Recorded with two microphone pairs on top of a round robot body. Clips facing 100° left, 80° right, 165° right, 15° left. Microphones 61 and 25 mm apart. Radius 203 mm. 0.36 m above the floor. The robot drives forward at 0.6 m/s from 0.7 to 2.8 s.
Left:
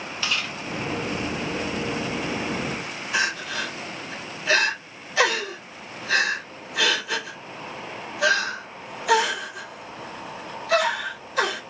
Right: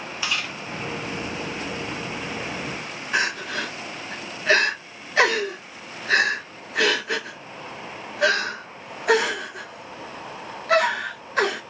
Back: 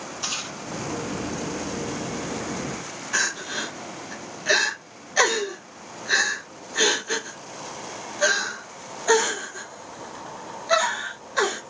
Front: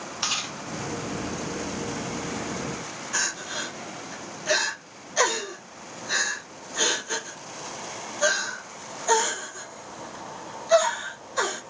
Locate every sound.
0.2 s chewing: straight ahead, 1.5 m
3.1 s crying: 120° right, 2 m